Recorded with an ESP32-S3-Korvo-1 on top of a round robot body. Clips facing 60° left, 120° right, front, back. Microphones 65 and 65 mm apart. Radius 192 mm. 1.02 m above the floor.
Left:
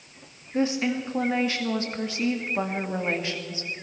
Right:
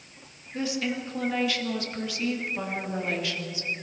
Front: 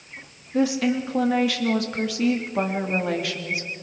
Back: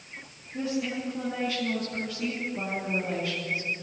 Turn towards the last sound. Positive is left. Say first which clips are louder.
# left 5 dB, front 9 dB
turn(degrees=0)